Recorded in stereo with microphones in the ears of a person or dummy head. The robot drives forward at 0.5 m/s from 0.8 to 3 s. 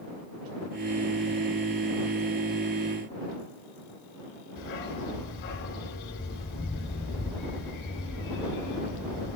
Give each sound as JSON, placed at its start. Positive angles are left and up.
{"t": 4.6, "sound": "a dog barking", "side_deg": 60, "distance_m": 3.5}